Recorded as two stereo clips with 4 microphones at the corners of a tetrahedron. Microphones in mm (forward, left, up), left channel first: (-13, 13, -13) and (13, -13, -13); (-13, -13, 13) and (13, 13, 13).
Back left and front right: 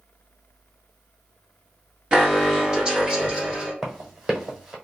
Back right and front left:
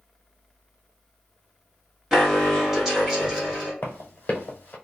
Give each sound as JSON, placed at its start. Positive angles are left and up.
{"t": 2.1, "sound": "an alarm", "azimuth_deg": -10, "distance_m": 1.6}
{"t": 3.8, "sound": "running footsteps", "azimuth_deg": -125, "distance_m": 1.0}